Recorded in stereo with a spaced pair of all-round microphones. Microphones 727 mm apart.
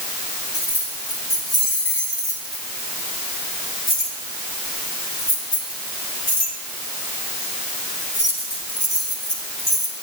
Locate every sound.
0.5 s keys jangling: 75° left (ahead or behind), 6.5 m; by 9.9 s 25° left (ahead or behind), 4.5 m